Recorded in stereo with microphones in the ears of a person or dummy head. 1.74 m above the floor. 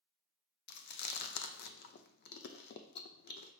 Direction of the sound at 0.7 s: 45° left (ahead or behind).